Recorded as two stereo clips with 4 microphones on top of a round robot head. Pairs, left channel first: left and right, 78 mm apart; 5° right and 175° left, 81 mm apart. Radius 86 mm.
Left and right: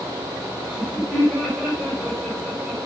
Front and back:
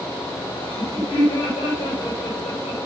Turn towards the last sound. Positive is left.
turn(degrees=-5)